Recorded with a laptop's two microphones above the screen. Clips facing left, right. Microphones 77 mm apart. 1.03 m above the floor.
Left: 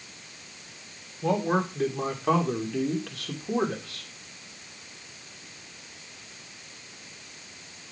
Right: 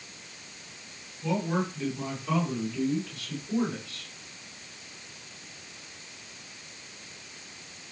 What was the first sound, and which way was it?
A man speaking, 50° left (ahead or behind).